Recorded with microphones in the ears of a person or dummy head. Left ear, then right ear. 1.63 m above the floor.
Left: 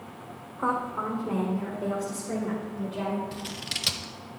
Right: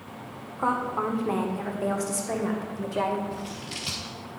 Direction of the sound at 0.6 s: 5° right (ahead or behind).